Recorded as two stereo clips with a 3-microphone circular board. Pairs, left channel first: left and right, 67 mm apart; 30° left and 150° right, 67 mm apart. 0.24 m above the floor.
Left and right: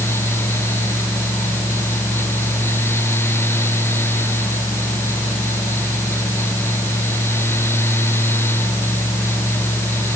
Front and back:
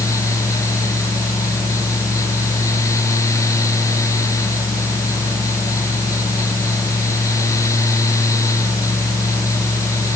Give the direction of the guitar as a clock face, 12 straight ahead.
No guitar in this recording.